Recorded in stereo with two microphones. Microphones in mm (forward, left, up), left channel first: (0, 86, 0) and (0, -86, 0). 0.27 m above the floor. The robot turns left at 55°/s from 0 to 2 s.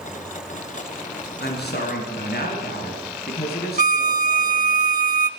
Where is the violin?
50° right (ahead or behind), 0.7 m.